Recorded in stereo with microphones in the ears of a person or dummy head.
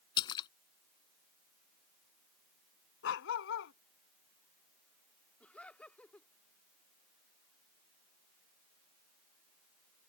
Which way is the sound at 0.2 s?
30° left (ahead or behind).